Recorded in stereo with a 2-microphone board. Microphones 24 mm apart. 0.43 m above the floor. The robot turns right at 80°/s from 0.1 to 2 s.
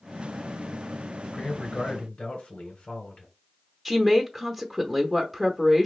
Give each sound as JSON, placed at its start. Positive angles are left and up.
{"t": 1.3, "sound": "a man speaking", "azimuth_deg": 45, "distance_m": 1.9}
{"t": 3.9, "sound": "a woman speaking", "side_deg": 0, "distance_m": 0.7}